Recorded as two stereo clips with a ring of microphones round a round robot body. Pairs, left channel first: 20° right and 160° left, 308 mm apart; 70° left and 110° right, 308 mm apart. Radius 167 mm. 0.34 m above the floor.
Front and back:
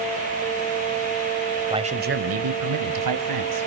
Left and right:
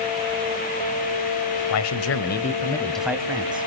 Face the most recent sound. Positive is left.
turn(degrees=175)